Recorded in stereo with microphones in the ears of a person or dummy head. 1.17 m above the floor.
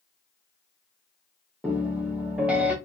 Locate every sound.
1.6 s a piano: 10° right (ahead or behind), 0.6 m